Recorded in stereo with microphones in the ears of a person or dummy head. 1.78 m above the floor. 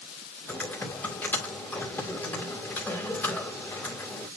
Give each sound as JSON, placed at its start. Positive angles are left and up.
{"t": 0.5, "sound": "typing on a keyboard", "side_deg": 15, "distance_m": 2.0}